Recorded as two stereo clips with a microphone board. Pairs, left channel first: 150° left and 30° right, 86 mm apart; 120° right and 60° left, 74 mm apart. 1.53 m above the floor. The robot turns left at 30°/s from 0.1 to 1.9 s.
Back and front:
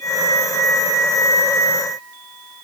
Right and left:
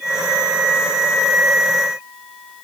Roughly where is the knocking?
No knocking in this recording.